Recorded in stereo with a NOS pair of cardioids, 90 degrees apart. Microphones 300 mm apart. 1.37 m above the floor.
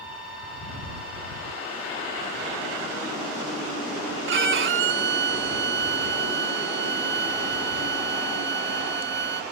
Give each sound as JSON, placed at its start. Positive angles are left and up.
{"t": 4.3, "sound": "a violin", "azimuth_deg": -40}